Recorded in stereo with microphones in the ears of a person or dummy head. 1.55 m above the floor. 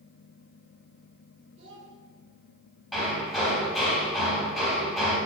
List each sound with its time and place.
1.6 s a child speaking: 30° right (ahead or behind), 3.5 m
2.9 s hammering: centre (ahead or behind), 3.5 m